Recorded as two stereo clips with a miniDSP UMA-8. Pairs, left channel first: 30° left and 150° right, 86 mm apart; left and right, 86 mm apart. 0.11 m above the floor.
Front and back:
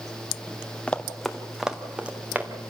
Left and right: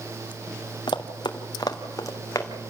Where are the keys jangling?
No keys jangling in this recording.